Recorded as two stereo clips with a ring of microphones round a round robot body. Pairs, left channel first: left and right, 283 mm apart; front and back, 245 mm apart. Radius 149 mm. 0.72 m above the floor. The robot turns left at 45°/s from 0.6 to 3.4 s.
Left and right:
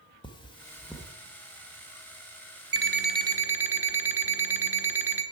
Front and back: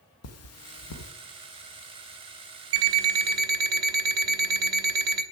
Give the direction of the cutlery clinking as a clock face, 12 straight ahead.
11 o'clock.